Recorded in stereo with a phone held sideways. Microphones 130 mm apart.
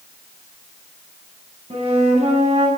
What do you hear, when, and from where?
1.7 s a flute: 55° right (ahead or behind), 9 m